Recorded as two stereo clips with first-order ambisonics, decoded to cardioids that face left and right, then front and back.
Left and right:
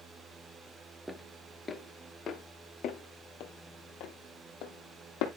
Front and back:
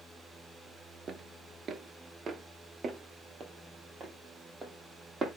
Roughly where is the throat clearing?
No throat clearing in this recording.